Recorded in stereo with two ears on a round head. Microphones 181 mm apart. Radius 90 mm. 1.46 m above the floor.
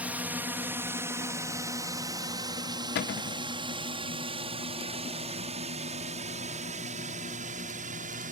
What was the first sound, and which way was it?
A drone, 10° right (ahead or behind).